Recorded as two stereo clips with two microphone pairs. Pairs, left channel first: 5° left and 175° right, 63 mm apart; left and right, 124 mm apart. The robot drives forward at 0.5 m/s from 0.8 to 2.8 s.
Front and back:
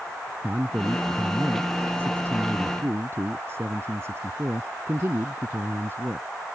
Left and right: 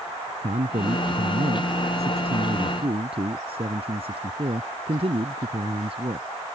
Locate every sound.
0.4 s a man speaking: 110° right; by 6.3 s 125° right